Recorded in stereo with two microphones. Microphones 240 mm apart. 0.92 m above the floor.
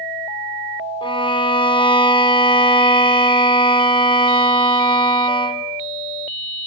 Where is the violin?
20° left (ahead or behind), 1.5 m.